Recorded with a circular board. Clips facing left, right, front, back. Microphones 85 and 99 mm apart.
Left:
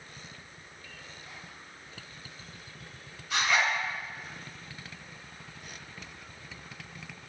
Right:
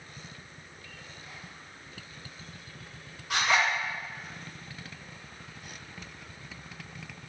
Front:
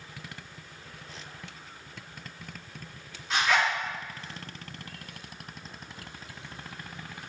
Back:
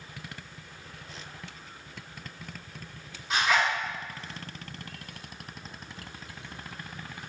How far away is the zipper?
About 1.8 m.